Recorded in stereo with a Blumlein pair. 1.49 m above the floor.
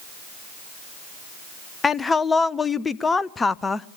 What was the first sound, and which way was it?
A woman speaking, 15° left.